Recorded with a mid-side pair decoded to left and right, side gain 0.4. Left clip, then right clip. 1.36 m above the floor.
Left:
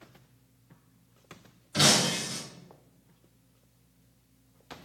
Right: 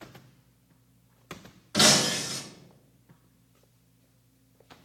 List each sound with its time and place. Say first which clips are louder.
1.7 s breaking glass: right 2 dB; 50° right, 1.6 m